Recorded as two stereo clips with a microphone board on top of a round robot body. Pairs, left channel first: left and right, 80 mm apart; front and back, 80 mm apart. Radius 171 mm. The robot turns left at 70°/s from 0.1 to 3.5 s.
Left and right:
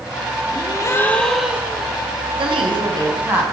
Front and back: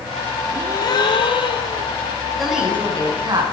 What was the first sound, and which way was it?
A gasp, 60° left.